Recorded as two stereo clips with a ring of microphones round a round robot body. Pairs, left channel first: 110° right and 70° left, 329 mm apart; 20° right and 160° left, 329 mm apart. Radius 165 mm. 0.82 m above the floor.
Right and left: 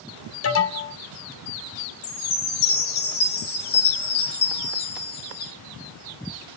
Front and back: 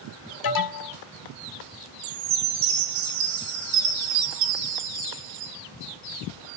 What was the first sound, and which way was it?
An alarm, 60° right.